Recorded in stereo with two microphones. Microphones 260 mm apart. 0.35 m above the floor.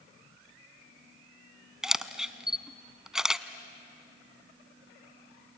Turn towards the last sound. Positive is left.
turn(degrees=0)  # may be behind; listen again after turning